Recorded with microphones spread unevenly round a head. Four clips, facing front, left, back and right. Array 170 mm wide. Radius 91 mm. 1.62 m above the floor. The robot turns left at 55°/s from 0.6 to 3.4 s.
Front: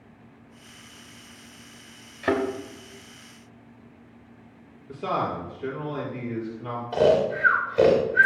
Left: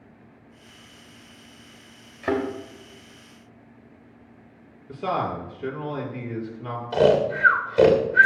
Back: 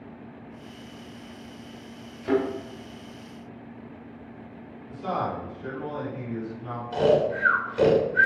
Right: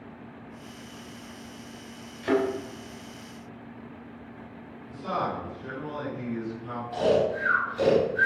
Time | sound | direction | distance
2.2 | a thud | 30° left | 3.5 m
4.9 | a man speaking | 55° left | 5.5 m
6.9 | snoring | 75° left | 2.5 m